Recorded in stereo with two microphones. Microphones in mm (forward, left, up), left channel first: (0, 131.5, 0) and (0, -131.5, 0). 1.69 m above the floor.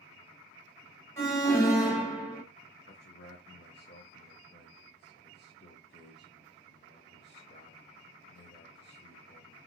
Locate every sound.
1.2 s an alarm: 10° left (ahead or behind), 1.1 m
2.9 s a man speaking: 40° left (ahead or behind), 0.6 m